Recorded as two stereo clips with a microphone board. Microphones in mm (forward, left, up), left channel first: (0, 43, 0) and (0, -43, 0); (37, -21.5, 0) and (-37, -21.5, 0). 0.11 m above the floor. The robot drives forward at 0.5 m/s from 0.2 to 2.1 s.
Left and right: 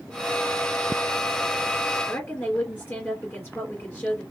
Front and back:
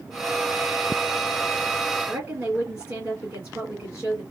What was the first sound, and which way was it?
A woman speaking, 140° left.